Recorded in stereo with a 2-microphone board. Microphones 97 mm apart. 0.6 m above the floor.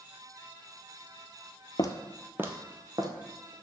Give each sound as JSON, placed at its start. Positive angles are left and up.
{"t": 1.8, "sound": "footsteps", "side_deg": 45, "distance_m": 0.8}